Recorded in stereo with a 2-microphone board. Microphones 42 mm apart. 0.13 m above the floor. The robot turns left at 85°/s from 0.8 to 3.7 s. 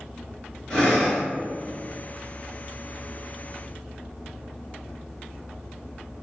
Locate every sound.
0.7 s breathing: 20° left, 1.8 m; by 1.2 s 15° right, 1.8 m